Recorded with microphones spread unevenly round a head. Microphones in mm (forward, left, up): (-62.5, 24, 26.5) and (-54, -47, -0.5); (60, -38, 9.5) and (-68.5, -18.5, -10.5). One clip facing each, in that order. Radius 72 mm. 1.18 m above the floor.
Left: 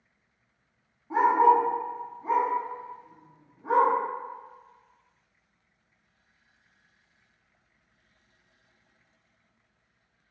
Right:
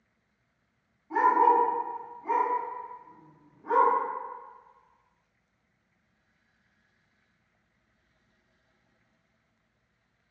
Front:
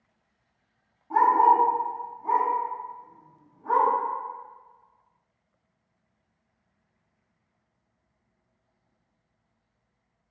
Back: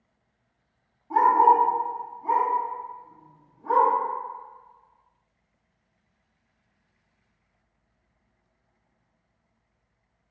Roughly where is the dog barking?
Left.